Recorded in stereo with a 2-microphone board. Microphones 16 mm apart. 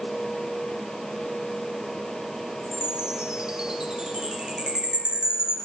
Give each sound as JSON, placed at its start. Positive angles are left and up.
{"t": 2.6, "sound": "a chime", "side_deg": -60, "distance_m": 5.0}